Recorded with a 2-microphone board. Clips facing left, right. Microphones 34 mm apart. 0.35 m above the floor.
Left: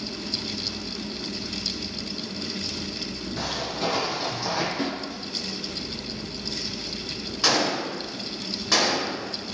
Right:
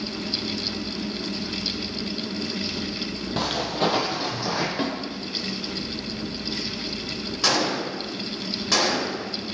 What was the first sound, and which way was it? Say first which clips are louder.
Footsteps: right 5 dB; 60° right (ahead or behind).